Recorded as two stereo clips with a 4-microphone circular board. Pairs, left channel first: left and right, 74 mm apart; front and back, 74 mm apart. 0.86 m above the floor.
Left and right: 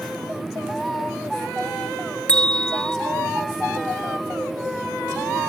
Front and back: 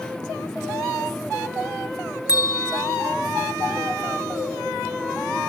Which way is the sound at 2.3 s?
20° left.